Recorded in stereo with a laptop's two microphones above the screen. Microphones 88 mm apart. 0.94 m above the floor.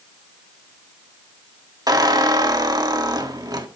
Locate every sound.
1.9 s a squeak: 50° right (ahead or behind), 1.3 m